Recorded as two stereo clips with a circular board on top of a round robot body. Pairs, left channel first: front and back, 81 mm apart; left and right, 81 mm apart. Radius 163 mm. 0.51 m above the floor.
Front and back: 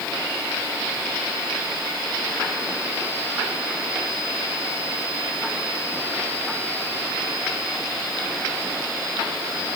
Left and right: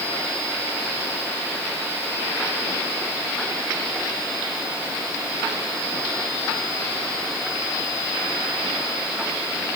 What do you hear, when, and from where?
Only background noise.